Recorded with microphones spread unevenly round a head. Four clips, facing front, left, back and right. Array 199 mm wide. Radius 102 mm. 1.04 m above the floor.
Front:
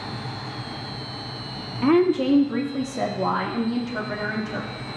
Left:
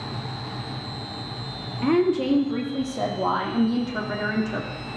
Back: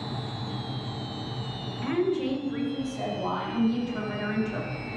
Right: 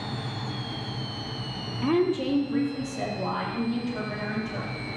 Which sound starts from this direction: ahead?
A woman speaking, at 1.8 s.